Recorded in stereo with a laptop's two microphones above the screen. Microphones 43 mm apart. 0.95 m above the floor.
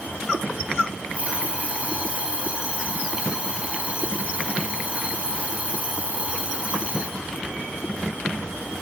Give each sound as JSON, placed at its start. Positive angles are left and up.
{"t": 1.1, "sound": "an alarm clock", "side_deg": -30, "distance_m": 4.5}